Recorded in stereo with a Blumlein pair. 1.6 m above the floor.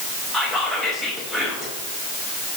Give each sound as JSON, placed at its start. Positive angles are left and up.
{"t": 0.3, "sound": "whispering", "azimuth_deg": 10, "distance_m": 0.8}